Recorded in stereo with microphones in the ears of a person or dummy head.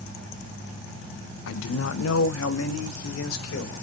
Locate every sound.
1.5 s a man speaking: 70° left (ahead or behind), 0.7 m; by 3.8 s 85° left, 2 m